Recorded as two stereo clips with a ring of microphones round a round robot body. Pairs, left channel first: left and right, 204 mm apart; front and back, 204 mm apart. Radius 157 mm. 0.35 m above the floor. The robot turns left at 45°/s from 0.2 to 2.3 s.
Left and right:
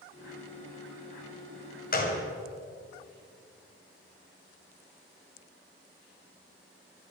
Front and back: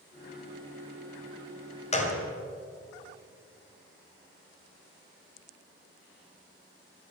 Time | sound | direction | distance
1.9 | a gunshot | 55° left | 2.5 m